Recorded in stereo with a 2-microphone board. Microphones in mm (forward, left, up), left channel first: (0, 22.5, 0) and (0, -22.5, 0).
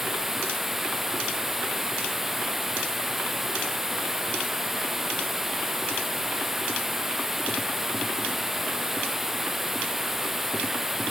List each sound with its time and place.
0.0 s running water: 5° right (ahead or behind)